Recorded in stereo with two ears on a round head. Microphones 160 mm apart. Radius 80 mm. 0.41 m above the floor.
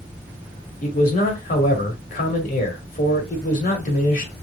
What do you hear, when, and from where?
0.8 s a man speaking: 50° left (ahead or behind), 1.6 m